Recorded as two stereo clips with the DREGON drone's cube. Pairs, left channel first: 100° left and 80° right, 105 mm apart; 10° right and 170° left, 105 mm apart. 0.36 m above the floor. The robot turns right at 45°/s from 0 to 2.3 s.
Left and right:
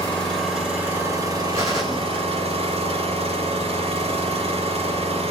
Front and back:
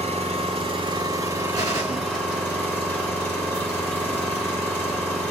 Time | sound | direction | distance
0.0 | an engine running | 170° left | 2.5 m
1.5 | a gunshot | 135° right | 2.5 m